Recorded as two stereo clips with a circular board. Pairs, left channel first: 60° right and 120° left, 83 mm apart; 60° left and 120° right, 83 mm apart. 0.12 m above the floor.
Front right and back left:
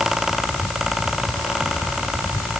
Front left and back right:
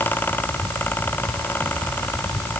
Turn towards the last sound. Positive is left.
No sound to turn to.